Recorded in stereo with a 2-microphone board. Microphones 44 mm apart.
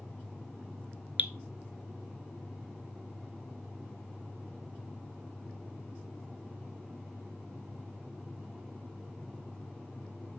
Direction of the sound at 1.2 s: 40° right (ahead or behind).